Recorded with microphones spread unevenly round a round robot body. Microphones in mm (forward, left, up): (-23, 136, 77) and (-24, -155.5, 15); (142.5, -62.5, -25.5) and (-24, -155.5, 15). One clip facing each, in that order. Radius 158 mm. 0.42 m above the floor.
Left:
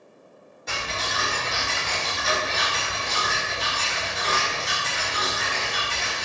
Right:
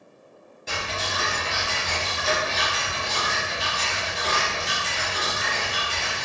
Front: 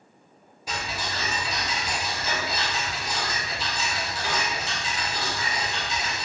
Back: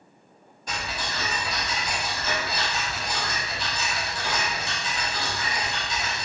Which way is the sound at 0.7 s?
25° right.